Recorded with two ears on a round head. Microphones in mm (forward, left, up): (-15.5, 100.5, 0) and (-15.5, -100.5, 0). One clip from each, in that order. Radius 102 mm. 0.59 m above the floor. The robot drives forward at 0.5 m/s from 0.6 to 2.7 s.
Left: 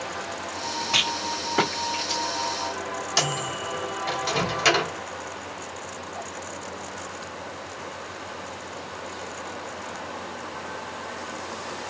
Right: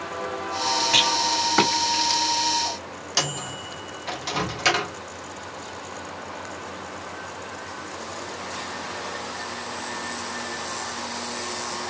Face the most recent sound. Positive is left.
turn(degrees=5)  # may be behind; listen again after turning